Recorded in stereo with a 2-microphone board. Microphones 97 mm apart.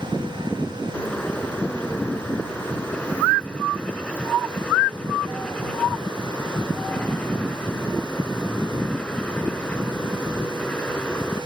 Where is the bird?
15° left (ahead or behind).